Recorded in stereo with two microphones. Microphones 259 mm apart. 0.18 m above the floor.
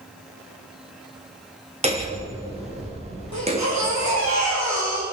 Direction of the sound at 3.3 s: 80° right.